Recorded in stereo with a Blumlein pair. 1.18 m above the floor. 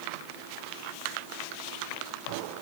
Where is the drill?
No drill in this recording.